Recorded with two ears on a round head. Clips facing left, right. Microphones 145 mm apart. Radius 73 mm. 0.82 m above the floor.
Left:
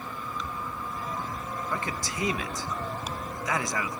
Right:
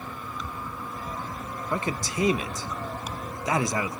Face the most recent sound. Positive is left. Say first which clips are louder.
# right 7 dB
turn(degrees=-20)  # may be behind; listen again after turning